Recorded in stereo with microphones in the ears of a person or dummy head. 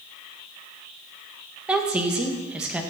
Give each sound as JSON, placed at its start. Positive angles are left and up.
{"t": 1.7, "sound": "a woman speaking", "side_deg": -5, "distance_m": 1.7}